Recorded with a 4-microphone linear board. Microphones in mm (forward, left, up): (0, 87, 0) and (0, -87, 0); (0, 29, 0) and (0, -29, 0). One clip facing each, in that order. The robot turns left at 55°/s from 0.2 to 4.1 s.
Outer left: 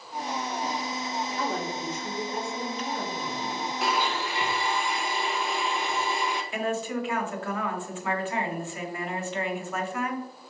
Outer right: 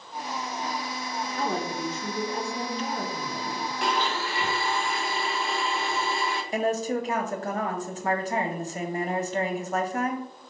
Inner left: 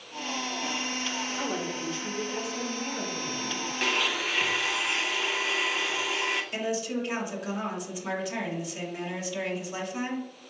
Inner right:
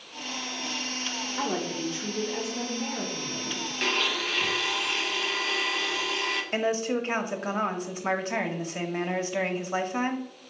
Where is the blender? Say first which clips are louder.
Even, even; centre (ahead or behind), 0.6 m; by 6.4 s 15° left (ahead or behind), 0.6 m.